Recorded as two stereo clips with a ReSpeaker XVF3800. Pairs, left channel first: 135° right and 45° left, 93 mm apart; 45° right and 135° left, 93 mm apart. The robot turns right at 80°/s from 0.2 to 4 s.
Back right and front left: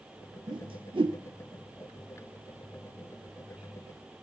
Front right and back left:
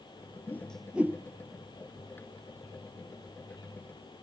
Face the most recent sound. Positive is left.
turn(degrees=-60)